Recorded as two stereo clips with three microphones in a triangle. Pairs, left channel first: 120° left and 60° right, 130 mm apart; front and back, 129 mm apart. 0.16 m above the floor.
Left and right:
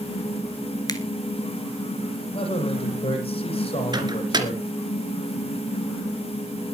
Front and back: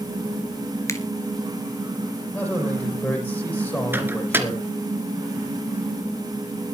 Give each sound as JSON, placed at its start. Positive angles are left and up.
{"t": 0.9, "sound": "a finger snap", "azimuth_deg": 65, "distance_m": 2.0}
{"t": 2.3, "sound": "a man speaking", "azimuth_deg": 75, "distance_m": 8.0}
{"t": 3.9, "sound": "a microwave", "azimuth_deg": -110, "distance_m": 2.5}